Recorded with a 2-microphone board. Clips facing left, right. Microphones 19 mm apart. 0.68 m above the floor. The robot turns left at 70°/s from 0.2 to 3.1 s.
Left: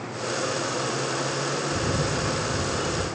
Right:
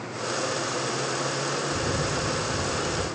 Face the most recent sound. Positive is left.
turn(degrees=-10)